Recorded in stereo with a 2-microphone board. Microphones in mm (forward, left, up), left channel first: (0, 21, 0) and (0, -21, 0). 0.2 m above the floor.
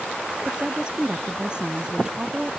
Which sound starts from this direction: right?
A woman speaking, at 0.5 s.